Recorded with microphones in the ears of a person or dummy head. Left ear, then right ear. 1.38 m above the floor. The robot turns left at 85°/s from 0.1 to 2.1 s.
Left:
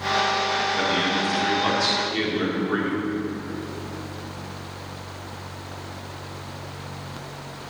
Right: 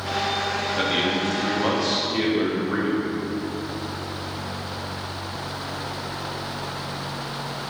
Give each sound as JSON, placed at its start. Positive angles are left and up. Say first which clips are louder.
{"t": 0.8, "sound": "a man speaking", "louder": "even", "azimuth_deg": 145, "distance_m": 4.0}